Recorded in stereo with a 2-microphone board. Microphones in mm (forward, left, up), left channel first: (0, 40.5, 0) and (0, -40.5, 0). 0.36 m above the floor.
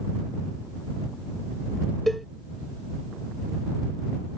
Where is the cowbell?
Centre (ahead or behind).